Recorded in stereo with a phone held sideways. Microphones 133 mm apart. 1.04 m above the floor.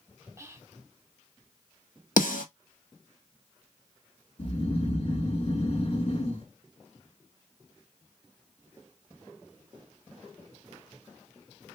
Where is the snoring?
45° left (ahead or behind), 1.5 m.